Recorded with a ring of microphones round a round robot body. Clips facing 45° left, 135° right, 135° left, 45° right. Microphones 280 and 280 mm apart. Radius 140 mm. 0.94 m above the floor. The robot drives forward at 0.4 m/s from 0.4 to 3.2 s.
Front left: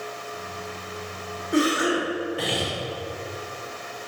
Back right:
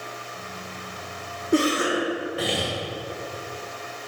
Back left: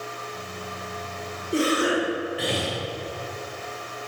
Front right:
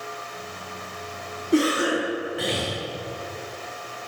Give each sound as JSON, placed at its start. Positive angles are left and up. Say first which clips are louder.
{"t": 1.5, "sound": "a cough", "louder": "even, front right 2 dB", "azimuth_deg": -75, "distance_m": 1.6}